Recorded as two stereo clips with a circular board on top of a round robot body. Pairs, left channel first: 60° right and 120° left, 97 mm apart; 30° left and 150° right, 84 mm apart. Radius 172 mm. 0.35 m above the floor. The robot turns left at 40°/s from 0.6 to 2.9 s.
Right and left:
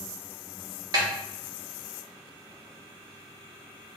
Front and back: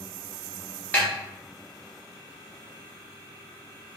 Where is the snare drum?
95° left, 1.1 m; by 1.1 s 90° left, 1.1 m.